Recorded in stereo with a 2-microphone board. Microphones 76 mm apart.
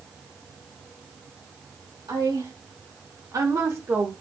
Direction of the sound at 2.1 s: 75° right (ahead or behind).